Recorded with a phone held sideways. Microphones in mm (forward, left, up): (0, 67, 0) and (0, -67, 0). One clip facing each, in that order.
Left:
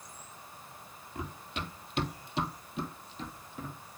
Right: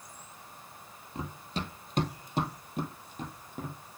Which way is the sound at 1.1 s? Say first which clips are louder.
Right 3 dB; 30° right (ahead or behind).